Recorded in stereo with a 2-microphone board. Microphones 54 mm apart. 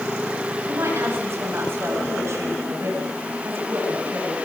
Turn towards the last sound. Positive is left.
turn(degrees=-55)  # may be behind; listen again after turning